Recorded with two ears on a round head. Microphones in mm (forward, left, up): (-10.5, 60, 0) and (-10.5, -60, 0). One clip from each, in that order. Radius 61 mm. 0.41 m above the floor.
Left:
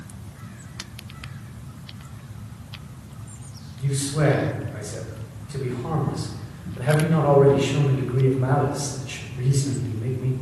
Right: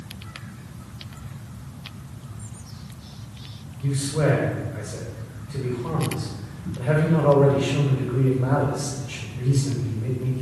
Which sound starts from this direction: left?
A man speaking, at 3.8 s.